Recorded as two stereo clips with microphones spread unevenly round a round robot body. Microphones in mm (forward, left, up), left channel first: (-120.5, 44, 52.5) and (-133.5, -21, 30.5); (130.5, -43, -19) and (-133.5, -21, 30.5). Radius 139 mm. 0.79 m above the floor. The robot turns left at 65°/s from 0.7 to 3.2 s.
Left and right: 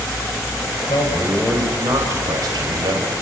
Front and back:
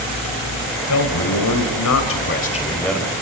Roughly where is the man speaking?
Ahead left.